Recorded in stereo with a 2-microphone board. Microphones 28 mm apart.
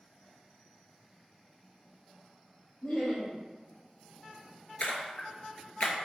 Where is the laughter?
40° left (ahead or behind), 2.0 m.